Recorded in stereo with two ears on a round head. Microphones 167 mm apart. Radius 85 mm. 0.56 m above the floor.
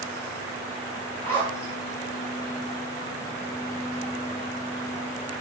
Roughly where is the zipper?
Centre.